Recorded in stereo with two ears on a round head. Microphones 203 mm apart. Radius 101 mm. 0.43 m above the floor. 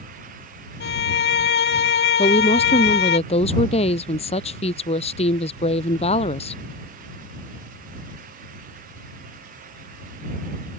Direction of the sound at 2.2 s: 30° left (ahead or behind).